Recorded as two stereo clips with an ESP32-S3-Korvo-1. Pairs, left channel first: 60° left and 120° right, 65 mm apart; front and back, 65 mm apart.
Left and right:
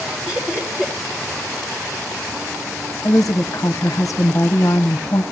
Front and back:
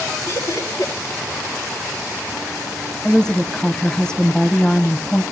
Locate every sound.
0.3 s laughter: 45° right, 4.5 m
3.0 s a woman speaking: 75° left, 1.0 m